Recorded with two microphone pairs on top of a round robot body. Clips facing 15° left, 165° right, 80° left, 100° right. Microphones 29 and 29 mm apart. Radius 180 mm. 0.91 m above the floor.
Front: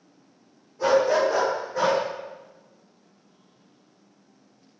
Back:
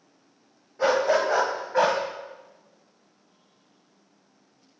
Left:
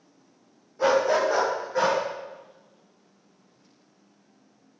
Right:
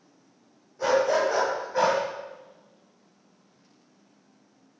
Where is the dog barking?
150° left, 1.7 m; by 2.0 s 170° right, 2 m.